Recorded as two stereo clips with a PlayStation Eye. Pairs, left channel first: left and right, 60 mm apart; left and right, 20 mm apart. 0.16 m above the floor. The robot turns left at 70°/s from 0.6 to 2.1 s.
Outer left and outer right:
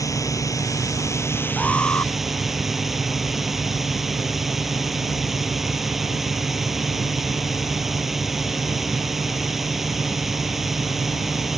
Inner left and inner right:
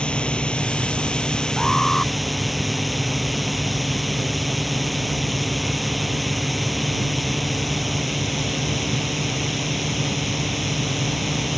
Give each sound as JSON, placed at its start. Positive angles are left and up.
{"t": 0.0, "sound": "a drone", "azimuth_deg": 100}
{"t": 1.6, "sound": "an alarm", "azimuth_deg": 170}